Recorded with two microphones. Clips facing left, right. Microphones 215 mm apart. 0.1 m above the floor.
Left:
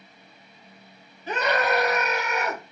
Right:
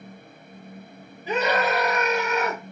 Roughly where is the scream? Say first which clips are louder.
Right 1 dB; centre.